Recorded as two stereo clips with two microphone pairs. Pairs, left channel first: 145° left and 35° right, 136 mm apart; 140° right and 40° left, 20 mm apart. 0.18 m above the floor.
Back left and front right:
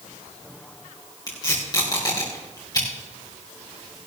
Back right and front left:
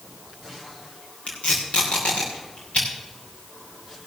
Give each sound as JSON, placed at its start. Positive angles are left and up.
{"t": 1.3, "sound": "tape being pulled", "azimuth_deg": -155, "distance_m": 5.0}